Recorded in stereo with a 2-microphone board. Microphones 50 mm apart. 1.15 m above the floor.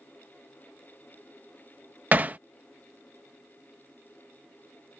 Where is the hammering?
30° right (ahead or behind).